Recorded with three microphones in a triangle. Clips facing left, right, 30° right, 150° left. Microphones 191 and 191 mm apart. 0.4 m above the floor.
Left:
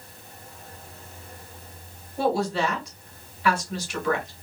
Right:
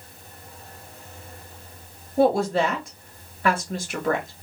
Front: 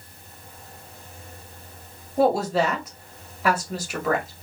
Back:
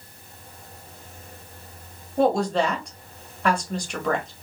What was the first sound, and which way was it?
A woman speaking, 115° right.